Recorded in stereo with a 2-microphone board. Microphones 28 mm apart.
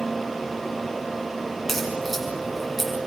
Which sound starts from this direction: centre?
A crack, at 1.7 s.